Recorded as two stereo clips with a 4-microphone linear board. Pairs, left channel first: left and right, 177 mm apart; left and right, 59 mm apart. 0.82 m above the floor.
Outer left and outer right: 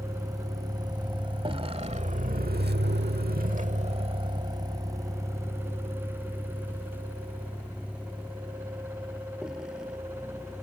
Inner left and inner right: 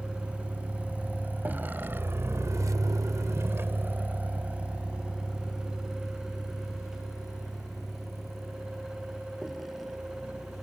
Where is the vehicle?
20° right (ahead or behind); by 10.6 s 5° right (ahead or behind).